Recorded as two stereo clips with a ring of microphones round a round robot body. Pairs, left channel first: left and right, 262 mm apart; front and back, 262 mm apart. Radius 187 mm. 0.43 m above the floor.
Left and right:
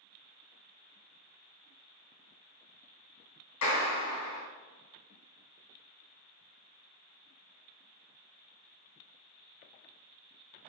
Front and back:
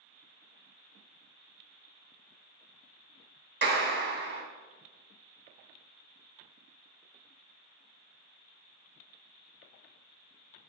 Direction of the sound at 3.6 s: 135° left.